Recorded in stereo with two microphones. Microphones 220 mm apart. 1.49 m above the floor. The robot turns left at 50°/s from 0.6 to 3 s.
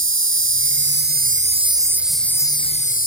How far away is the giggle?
I don't hear a giggle.